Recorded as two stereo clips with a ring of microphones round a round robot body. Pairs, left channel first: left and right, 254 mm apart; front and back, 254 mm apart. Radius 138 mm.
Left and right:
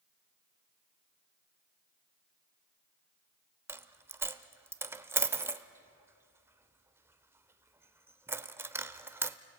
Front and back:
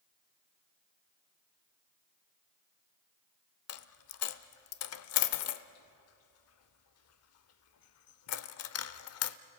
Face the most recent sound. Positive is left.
turn(degrees=-10)